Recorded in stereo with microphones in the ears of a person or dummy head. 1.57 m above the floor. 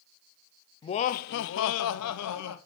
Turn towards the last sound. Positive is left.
turn(degrees=85)